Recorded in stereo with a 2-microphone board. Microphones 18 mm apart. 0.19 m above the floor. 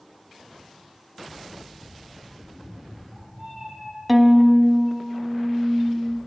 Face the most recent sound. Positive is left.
turn(degrees=-10)  # may be behind; listen again after turning